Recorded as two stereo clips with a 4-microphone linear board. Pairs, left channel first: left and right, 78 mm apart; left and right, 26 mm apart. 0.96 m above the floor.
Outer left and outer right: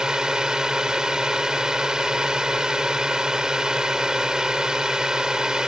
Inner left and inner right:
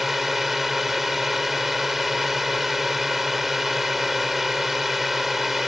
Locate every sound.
0.0 s a drone: 10° right (ahead or behind)